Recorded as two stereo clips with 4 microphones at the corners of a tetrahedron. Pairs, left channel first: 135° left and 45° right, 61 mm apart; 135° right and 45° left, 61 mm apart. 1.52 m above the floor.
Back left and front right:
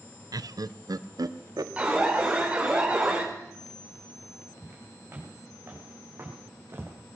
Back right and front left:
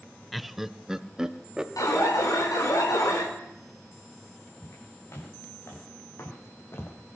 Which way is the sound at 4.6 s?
100° right.